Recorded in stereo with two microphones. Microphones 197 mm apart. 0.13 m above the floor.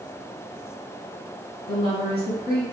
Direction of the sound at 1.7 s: 50° left (ahead or behind).